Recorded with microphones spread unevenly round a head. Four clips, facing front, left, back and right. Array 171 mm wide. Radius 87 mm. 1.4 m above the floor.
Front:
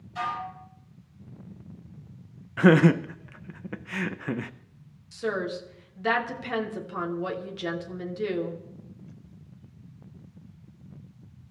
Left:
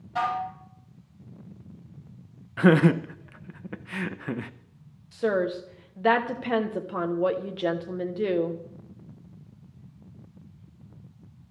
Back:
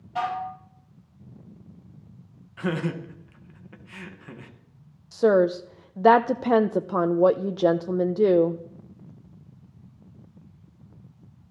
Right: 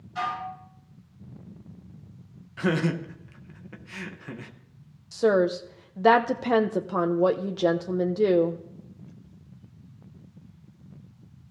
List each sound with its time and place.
0.1 s dishes clattering: 135° left, 6.5 m
2.6 s laughter: 35° left, 0.9 m
5.1 s a woman speaking: 165° right, 1.1 m